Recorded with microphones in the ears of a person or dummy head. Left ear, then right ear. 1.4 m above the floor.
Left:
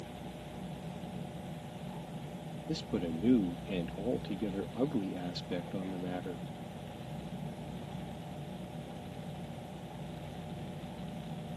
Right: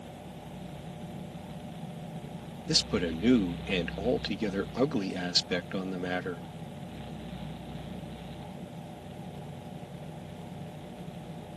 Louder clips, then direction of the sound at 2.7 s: Right 9 dB; 60° right (ahead or behind).